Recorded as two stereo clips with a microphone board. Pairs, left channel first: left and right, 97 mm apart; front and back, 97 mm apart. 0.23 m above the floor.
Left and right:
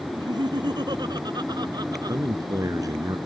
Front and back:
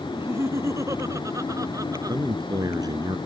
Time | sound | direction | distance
0.1 | laughter | 120° right | ?
2.1 | a man speaking | 135° right | ?